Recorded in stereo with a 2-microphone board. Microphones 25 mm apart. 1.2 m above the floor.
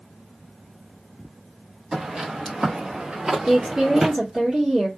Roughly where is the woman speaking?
Right.